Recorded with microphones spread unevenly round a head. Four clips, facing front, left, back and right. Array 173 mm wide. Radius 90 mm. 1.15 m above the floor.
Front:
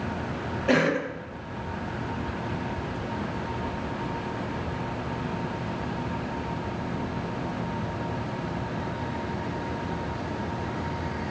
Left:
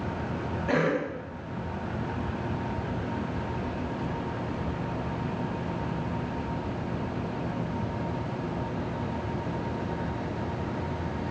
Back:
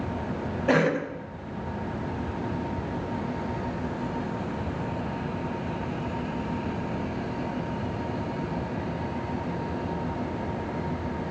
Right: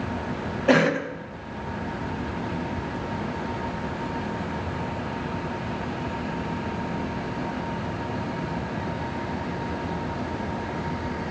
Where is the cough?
120° right, 0.6 m.